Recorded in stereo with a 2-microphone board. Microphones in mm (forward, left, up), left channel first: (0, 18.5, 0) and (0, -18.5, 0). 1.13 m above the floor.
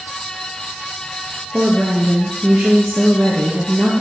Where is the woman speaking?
65° right (ahead or behind), 1.3 m.